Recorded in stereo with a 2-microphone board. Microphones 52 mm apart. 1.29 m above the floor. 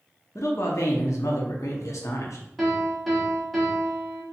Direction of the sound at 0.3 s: 80° left.